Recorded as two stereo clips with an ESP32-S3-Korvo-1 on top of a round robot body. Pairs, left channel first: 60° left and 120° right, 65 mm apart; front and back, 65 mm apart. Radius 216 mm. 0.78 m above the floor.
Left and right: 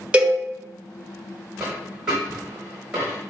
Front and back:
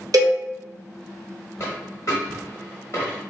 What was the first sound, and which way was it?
A cowbell, 170° left.